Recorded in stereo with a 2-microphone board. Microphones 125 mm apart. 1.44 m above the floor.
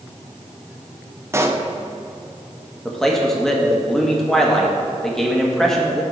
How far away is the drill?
No drill in this recording.